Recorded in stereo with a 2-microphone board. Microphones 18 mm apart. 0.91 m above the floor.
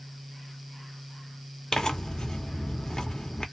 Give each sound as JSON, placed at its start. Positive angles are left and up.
{"t": 1.7, "sound": "tearing paper", "side_deg": 45, "distance_m": 0.8}